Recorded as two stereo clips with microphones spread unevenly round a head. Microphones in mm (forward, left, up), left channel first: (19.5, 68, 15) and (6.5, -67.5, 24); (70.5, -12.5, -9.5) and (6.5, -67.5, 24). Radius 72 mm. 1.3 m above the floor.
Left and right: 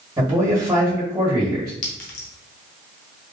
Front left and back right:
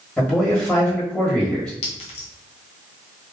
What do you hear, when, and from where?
0.2 s a man speaking: 25° right, 1.5 m
1.8 s a clink: 55° left, 0.7 m